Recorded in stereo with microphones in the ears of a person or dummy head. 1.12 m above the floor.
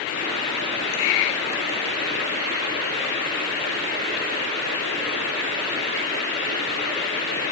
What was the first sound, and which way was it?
Only background noise.